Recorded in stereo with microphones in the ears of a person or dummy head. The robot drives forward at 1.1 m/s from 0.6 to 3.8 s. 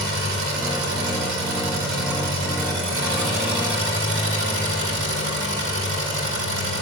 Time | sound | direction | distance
0.0 | an engine running | 80° right | 5 m